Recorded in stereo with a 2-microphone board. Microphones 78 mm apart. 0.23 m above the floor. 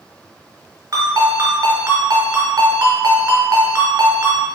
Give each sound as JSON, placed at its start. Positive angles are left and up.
{"t": 0.9, "sound": "a ringtone", "side_deg": -50, "distance_m": 1.4}